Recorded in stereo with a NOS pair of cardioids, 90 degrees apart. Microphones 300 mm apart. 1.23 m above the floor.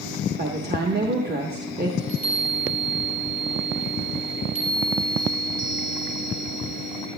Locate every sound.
0.4 s a woman speaking: 30° right, 1.2 m
2.0 s a chime: 30° right, 4.5 m